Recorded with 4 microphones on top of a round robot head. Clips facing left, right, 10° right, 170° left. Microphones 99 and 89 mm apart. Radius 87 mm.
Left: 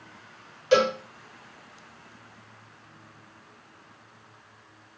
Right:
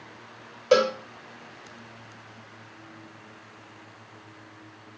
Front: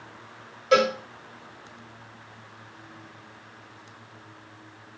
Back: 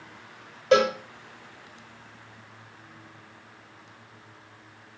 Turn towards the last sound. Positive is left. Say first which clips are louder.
# right 1 dB, even
turn(degrees=-130)